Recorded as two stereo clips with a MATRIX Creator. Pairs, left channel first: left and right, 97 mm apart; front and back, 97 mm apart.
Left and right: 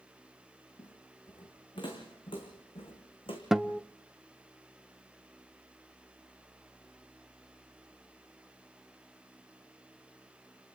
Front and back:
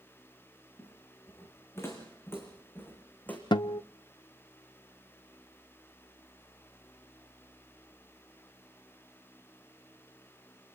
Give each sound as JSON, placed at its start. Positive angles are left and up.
{"t": 0.8, "sound": "footsteps", "azimuth_deg": 55, "distance_m": 6.5}
{"t": 3.5, "sound": "a guitar", "azimuth_deg": -5, "distance_m": 0.6}